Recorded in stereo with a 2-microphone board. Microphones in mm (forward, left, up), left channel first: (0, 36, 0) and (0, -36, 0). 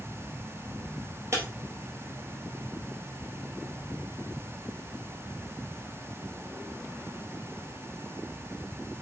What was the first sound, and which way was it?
Breaking glass, 35° right (ahead or behind).